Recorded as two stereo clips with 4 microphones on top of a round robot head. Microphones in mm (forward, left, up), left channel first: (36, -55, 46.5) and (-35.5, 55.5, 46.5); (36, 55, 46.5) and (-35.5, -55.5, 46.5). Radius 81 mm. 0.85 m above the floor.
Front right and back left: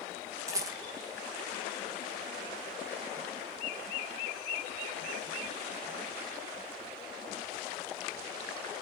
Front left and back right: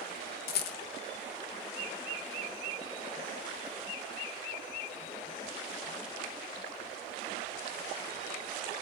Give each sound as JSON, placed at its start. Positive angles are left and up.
{"t": 0.5, "sound": "a rattle", "azimuth_deg": 55, "distance_m": 0.5}